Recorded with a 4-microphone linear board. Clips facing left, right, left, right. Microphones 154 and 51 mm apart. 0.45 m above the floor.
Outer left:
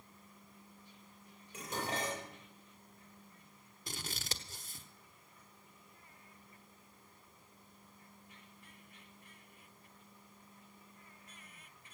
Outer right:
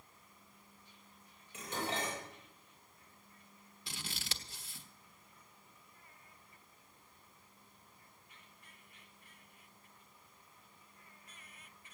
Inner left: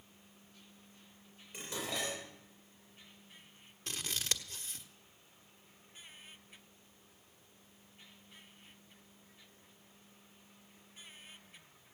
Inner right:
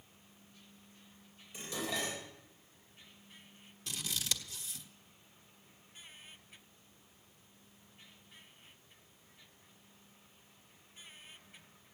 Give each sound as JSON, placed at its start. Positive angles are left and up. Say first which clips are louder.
{"t": 1.5, "sound": "dishes clattering", "louder": "even, inner right 1 dB", "side_deg": 45, "distance_m": 8.5}
{"t": 3.9, "sound": "scissors", "louder": "outer left 3 dB, even", "side_deg": 45, "distance_m": 1.3}